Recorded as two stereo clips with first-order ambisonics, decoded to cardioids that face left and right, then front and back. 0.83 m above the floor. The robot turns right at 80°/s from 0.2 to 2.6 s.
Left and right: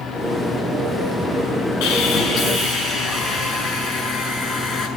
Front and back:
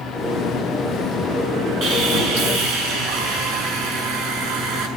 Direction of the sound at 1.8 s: 120° left.